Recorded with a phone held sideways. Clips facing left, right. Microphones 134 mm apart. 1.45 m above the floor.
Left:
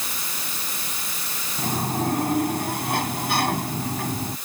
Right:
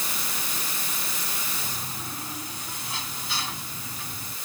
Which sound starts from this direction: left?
A sliding door, at 1.6 s.